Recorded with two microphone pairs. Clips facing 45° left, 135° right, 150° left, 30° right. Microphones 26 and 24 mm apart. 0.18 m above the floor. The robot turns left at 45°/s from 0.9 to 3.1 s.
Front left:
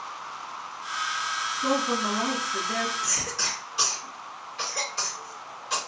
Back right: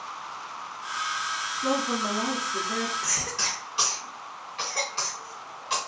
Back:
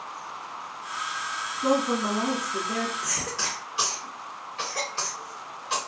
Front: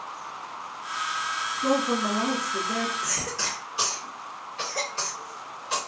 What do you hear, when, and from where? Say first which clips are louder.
1.6 s a woman speaking: front left 1 dB, back 1 dB; 110° left, 1.3 m; by 2.9 s 55° left, 1.3 m
3.0 s a cough: even, even; 145° right, 1.7 m; by 5.8 s 150° right, 1.7 m